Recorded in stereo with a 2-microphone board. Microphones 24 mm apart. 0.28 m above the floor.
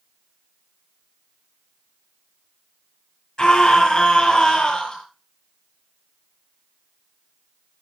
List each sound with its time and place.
3.4 s a scream: 35° left (ahead or behind), 5.5 m